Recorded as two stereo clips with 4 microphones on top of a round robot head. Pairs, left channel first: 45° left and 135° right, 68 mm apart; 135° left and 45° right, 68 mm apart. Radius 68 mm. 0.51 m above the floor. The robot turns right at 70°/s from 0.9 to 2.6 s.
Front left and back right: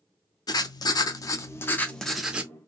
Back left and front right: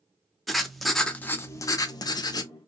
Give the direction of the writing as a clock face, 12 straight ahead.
10 o'clock.